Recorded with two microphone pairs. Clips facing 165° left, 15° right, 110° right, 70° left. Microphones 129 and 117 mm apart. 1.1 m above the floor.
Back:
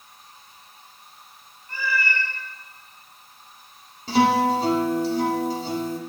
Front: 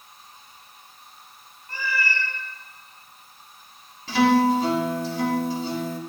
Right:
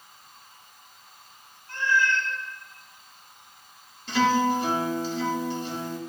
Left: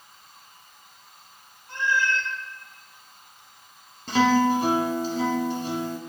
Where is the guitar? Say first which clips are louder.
Front 1 dB, left 2 dB; 115° left, 1.0 m.